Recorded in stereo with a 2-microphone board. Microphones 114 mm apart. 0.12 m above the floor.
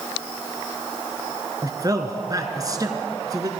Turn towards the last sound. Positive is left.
turn(degrees=-30)  # may be behind; listen again after turning